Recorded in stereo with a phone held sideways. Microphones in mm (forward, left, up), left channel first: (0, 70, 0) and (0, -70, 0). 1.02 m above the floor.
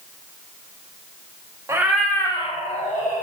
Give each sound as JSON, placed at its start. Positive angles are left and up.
{"t": 1.7, "sound": "a cat meowing", "side_deg": -20, "distance_m": 0.6}